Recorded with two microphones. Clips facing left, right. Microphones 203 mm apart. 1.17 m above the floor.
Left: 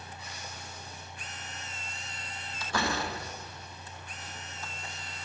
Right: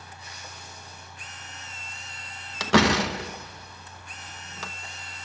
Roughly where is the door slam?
Right.